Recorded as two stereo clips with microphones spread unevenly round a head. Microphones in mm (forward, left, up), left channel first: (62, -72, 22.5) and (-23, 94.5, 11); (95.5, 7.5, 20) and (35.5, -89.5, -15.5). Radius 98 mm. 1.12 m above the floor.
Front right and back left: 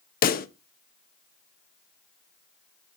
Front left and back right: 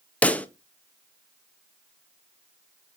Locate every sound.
0.2 s a pop: 35° right, 0.7 m